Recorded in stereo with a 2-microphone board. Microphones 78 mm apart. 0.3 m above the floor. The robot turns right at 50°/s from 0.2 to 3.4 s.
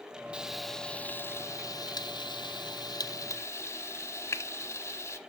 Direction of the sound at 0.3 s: 15° right (ahead or behind).